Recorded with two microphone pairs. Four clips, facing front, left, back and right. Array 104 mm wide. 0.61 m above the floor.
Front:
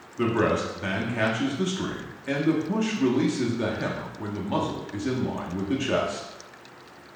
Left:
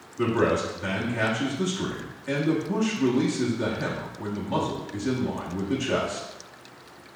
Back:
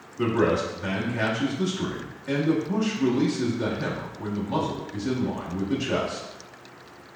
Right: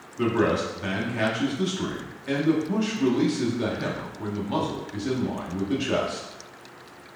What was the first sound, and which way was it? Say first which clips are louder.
A man speaking: even, back 1 dB; 15° right.